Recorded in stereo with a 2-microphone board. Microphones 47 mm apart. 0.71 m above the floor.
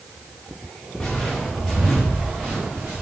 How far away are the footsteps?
About 2.5 m.